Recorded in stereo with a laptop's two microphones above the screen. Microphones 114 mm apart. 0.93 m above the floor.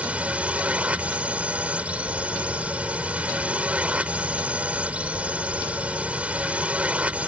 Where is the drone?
10° right (ahead or behind).